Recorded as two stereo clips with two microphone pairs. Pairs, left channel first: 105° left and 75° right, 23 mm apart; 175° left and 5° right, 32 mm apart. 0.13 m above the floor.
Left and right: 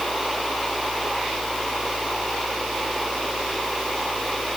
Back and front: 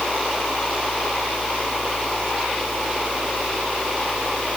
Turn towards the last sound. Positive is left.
No sound to turn to.